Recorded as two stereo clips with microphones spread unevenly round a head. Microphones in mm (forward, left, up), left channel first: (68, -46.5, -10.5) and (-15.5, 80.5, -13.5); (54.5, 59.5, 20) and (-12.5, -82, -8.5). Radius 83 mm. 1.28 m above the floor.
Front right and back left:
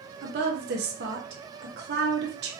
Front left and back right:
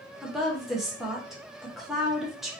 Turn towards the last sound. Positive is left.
turn(degrees=160)